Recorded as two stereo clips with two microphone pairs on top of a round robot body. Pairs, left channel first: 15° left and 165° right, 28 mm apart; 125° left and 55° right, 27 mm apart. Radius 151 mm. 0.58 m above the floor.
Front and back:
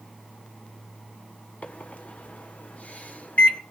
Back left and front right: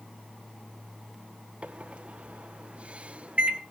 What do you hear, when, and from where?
1.6 s a microwave: 15° right, 2 m